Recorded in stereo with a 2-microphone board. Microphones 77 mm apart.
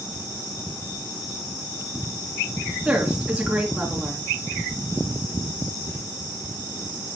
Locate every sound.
2.9 s a woman speaking: 15° right (ahead or behind), 3 m